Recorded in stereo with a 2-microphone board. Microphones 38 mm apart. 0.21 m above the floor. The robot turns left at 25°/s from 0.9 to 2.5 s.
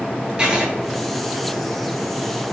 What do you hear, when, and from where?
0.4 s writing: 25° right (ahead or behind), 1.2 m